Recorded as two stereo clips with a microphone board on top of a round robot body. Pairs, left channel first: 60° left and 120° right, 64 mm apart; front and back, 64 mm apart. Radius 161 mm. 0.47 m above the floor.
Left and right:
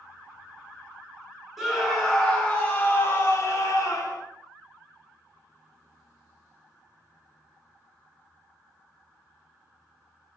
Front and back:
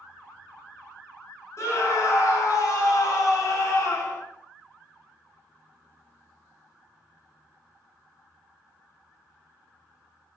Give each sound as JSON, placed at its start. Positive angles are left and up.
{"t": 1.6, "sound": "a scream", "azimuth_deg": -35, "distance_m": 2.0}